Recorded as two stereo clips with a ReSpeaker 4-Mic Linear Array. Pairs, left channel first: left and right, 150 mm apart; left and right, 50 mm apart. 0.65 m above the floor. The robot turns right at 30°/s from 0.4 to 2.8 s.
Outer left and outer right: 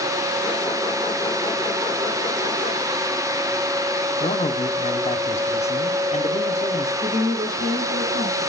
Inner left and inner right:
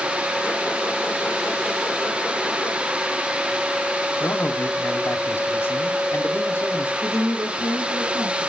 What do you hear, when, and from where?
4.2 s a man speaking: 50° left (ahead or behind), 1.1 m
7.0 s a woman speaking: 85° right, 6 m